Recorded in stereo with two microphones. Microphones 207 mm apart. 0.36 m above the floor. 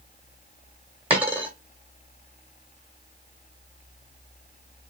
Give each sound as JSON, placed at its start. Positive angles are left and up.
{"t": 1.1, "sound": "a dropped coin", "side_deg": -5, "distance_m": 1.1}